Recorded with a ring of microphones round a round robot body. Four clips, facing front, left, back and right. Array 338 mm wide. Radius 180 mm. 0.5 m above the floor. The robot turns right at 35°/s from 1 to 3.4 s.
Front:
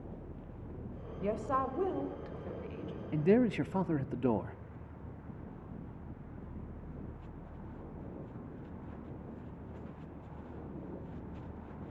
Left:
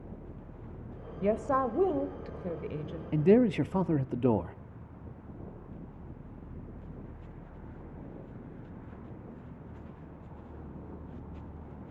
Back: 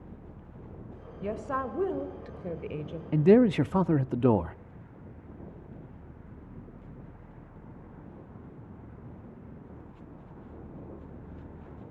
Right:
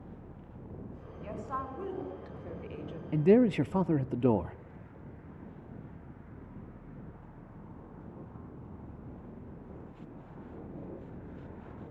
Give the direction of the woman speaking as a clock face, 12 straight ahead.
9 o'clock.